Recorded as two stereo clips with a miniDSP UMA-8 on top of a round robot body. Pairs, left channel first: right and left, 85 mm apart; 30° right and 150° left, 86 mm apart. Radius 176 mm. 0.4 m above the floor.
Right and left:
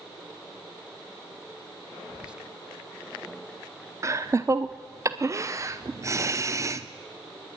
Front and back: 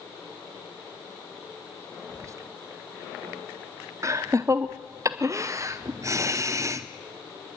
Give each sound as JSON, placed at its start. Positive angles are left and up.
{"t": 2.1, "sound": "whispering", "azimuth_deg": 160, "distance_m": 1.1}
{"t": 4.0, "sound": "laughter", "azimuth_deg": 120, "distance_m": 0.9}